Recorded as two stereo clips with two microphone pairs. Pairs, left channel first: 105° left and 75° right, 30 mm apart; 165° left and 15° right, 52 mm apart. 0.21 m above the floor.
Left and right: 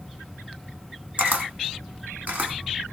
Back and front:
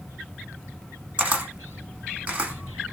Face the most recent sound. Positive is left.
turn(degrees=-70)